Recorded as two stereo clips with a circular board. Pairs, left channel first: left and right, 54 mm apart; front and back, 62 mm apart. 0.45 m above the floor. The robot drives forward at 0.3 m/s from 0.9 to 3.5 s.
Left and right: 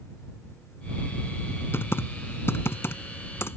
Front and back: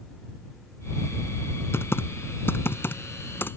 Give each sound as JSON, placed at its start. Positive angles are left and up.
{"t": 1.7, "sound": "typing on a keyboard", "azimuth_deg": 45}